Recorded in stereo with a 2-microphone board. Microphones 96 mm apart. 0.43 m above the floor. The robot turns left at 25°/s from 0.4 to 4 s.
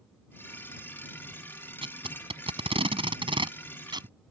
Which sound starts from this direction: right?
Tape being pulled, at 1.8 s.